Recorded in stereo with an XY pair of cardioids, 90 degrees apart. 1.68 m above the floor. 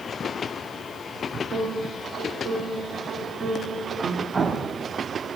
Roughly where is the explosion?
Ahead right.